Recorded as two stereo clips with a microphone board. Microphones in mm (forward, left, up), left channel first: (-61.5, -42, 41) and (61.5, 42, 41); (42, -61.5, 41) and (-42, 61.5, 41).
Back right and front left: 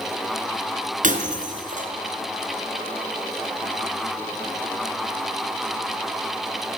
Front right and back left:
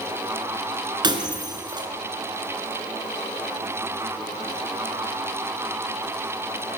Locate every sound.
1.0 s breaking glass: 65° left, 3.5 m